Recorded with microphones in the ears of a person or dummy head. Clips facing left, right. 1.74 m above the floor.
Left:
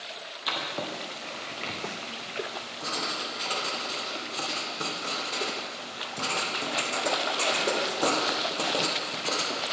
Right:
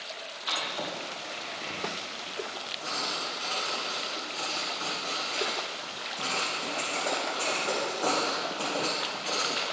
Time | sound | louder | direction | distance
0.5 | writing | left 2 dB | 65° left (ahead or behind) | 1.3 m